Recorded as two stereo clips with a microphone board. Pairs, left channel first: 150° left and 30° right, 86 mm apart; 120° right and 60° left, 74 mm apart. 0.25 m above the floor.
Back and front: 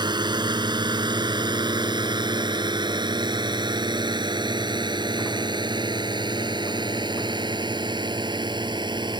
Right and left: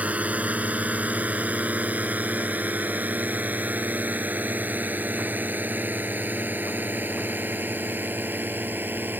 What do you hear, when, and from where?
0.0 s a drone: 10° right; by 9.2 s 5° right